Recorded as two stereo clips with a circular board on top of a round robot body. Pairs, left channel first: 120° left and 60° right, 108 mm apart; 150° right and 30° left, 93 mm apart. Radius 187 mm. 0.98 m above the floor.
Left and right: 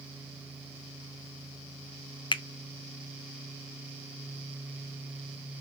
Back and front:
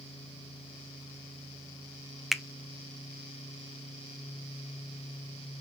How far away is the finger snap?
About 0.5 m.